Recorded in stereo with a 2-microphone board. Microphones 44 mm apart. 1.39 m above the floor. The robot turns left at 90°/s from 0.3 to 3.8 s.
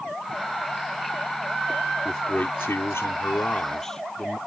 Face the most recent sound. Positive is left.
turn(degrees=10)